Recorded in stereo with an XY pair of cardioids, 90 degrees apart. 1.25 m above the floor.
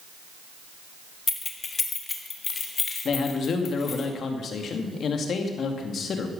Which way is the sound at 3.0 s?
60° left.